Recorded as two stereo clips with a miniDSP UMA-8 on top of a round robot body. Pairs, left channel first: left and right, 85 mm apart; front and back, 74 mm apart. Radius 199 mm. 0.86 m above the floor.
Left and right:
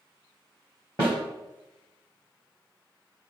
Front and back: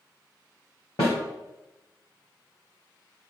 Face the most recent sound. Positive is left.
turn(degrees=25)